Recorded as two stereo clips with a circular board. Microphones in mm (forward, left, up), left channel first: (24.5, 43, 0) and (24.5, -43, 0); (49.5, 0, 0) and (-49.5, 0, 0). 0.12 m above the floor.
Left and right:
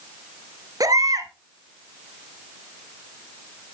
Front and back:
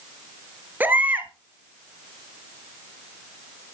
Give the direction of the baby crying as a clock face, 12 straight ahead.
4 o'clock.